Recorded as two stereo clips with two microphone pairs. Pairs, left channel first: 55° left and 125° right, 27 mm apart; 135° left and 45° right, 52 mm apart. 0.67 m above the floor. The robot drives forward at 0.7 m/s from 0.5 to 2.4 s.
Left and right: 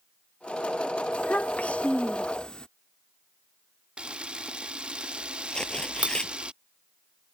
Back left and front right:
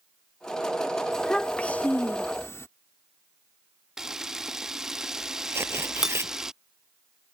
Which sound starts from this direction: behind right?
A camera shutter, at 4.0 s.